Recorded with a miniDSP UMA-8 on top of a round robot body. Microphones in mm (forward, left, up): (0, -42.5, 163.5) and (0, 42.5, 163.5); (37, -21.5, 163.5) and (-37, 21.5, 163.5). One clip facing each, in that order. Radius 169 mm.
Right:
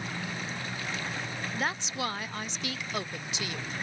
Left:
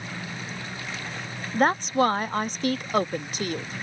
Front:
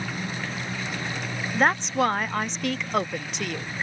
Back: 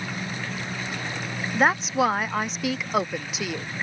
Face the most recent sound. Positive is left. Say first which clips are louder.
# left 13 dB, back 1 dB
turn(degrees=65)